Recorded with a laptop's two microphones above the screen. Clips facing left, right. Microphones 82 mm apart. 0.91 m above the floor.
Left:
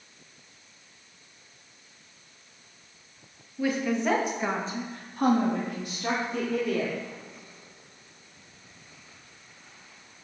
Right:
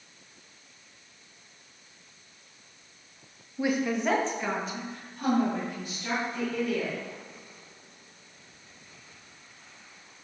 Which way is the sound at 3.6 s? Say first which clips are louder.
Left 1 dB; 20° right (ahead or behind).